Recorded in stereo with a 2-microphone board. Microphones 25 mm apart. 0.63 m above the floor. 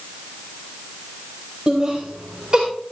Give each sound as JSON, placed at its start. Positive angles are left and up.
{"t": 1.7, "sound": "laughter", "side_deg": -30, "distance_m": 3.0}